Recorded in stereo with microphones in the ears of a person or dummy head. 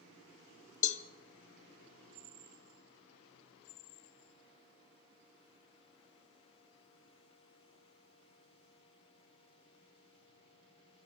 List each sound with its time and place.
0.8 s a cowbell: 40° left (ahead or behind), 1.1 m